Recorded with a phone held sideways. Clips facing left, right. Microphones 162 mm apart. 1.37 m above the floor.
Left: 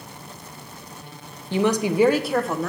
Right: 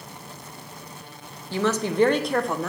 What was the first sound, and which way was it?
A woman speaking, 20° left (ahead or behind).